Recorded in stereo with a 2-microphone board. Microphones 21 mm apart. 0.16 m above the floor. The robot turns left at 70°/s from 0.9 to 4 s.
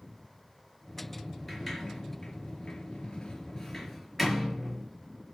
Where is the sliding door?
10° left (ahead or behind), 3.5 m; by 4.9 s 5° right (ahead or behind), 3.5 m.